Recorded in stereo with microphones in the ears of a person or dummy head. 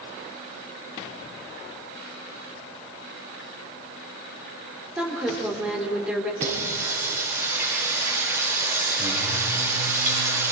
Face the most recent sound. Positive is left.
turn(degrees=-15)  # may be behind; listen again after turning